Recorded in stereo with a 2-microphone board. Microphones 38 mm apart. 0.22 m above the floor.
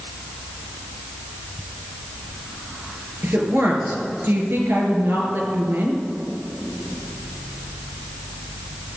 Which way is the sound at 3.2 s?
70° right (ahead or behind).